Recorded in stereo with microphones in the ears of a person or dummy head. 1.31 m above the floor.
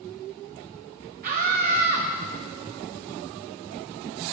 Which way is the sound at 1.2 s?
45° right (ahead or behind).